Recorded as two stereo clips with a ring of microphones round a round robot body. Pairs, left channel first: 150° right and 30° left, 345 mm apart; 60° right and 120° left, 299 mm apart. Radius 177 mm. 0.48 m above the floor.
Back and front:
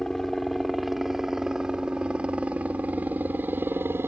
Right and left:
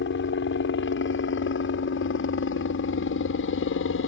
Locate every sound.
0.0 s a helicopter: 60° right; by 4.1 s 50° right